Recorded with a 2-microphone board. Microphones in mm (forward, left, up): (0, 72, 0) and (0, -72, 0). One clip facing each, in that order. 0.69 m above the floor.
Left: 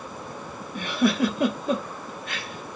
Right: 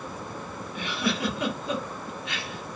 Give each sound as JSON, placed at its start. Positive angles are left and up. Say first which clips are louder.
{"t": 0.8, "sound": "a giggle", "louder": "left 7 dB", "side_deg": 45, "distance_m": 0.9}